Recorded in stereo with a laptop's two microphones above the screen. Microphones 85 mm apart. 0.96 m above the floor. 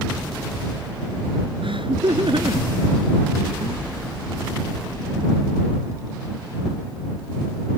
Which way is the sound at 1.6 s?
85° right.